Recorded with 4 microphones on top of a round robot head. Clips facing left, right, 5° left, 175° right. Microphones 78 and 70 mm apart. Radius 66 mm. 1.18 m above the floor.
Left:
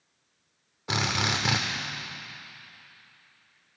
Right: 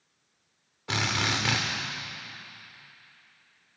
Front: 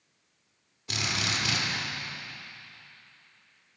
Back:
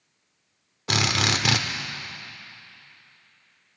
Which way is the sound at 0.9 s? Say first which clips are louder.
Left 1 dB, back 7 dB; 170° left.